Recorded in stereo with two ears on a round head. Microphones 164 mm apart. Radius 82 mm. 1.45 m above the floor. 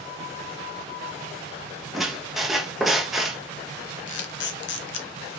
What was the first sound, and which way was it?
A squeak, centre (ahead or behind).